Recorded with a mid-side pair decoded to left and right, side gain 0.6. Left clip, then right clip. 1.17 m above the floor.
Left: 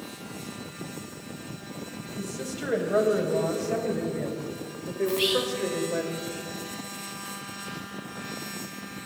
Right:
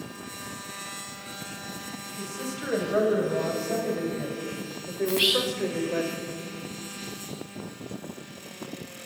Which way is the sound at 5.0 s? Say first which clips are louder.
Right 2 dB; 25° right.